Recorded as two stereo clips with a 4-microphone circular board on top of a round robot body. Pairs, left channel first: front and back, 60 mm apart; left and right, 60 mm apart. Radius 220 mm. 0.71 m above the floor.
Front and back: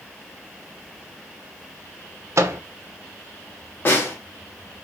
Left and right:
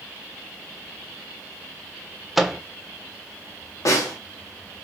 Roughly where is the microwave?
Behind.